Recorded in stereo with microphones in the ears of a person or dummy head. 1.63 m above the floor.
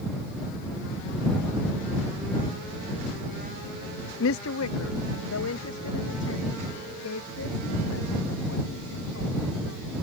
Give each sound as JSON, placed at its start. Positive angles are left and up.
{"t": 4.2, "sound": "a woman speaking", "side_deg": 65}